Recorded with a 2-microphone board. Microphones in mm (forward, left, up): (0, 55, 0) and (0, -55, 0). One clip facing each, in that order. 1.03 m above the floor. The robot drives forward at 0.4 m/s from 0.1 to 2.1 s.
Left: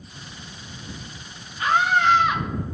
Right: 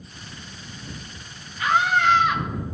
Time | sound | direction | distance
1.6 | a scream | 25° left (ahead or behind) | 1.7 m